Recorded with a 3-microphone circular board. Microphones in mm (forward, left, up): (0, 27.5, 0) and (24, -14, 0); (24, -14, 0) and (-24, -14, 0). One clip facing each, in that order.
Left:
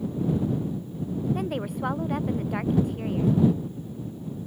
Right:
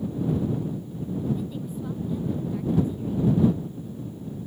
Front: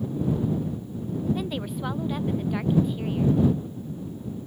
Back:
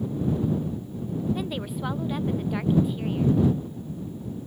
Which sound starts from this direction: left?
A woman speaking, at 1.4 s.